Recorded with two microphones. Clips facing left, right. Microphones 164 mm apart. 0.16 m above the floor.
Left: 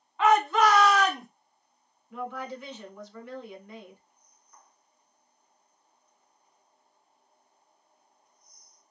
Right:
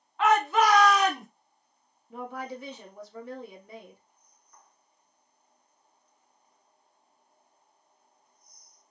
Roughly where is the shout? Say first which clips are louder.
Left 1 dB; centre.